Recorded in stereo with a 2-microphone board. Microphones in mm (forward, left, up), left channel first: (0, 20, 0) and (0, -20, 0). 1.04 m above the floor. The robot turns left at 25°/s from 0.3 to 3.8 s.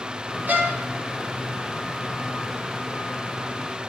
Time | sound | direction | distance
0.5 | a violin | 50° right (ahead or behind) | 0.5 m